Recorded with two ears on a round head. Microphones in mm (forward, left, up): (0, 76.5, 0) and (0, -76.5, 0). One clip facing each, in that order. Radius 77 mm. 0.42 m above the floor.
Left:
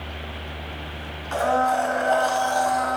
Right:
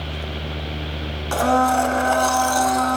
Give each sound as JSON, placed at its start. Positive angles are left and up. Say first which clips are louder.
{"t": 1.3, "sound": "a blender", "louder": "right 3 dB", "side_deg": -55, "distance_m": 0.7}